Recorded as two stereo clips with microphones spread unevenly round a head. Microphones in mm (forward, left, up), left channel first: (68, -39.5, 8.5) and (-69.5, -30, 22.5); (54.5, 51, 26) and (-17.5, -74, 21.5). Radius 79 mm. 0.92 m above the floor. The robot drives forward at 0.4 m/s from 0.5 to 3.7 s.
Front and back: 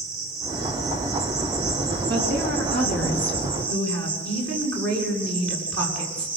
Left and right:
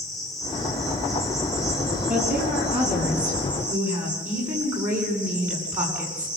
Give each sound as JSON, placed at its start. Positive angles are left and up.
{"t": 0.0, "sound": "an insect", "azimuth_deg": 150, "distance_m": 4.0}
{"t": 2.1, "sound": "a woman speaking", "azimuth_deg": 160, "distance_m": 8.0}